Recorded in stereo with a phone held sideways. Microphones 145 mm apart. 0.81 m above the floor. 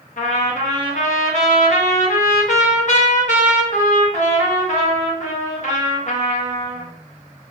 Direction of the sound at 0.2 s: 60° left (ahead or behind).